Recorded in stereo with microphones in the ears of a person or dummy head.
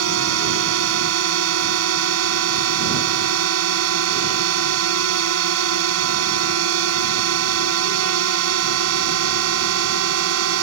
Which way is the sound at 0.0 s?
80° right.